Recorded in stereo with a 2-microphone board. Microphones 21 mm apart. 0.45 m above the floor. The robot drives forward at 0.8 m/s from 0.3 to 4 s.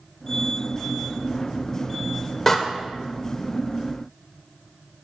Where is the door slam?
15° left (ahead or behind), 1.2 m.